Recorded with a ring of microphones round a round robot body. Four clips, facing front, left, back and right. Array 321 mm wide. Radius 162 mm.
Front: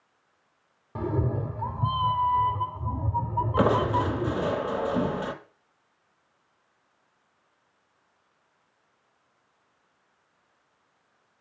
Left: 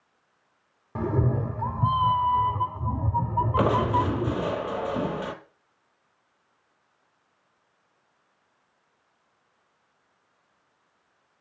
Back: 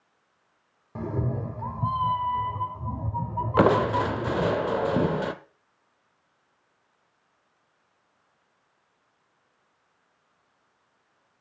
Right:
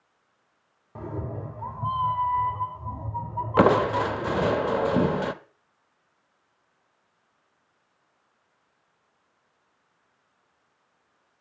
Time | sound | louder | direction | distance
0.9 | a cat meowing | left 8 dB, front 2 dB | 75° left | 0.7 m
3.6 | crushing | right 5 dB, back 3 dB | 120° right | 0.7 m